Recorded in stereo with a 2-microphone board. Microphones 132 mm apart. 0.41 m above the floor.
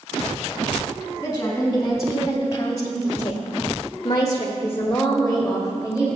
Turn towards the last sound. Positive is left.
turn(degrees=-5)  # may be behind; listen again after turning